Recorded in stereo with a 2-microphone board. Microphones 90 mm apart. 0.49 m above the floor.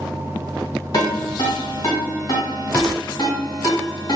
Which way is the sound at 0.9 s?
50° left (ahead or behind).